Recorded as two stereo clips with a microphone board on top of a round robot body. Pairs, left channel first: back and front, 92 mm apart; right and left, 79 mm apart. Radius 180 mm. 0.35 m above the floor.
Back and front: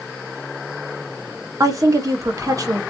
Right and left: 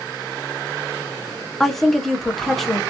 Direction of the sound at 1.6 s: 5° right.